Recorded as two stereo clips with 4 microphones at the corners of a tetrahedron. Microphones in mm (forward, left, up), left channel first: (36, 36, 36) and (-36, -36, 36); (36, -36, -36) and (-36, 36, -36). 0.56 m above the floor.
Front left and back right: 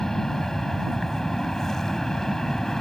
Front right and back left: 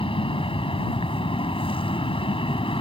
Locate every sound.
0.0 s an aircraft: 40° right